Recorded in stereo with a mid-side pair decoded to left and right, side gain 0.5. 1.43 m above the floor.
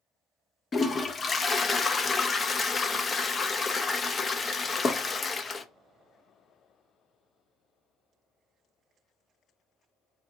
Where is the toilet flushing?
30° left, 0.6 m.